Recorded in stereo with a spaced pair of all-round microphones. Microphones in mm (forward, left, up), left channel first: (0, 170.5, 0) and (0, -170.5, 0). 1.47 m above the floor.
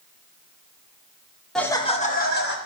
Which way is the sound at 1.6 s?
Centre (ahead or behind).